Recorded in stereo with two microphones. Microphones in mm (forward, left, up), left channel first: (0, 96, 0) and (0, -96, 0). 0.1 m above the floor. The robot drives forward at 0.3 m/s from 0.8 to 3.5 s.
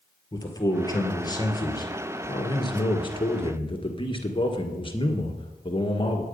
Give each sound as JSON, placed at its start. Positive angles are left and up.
{"t": 0.3, "sound": "a man speaking", "side_deg": 20, "distance_m": 1.9}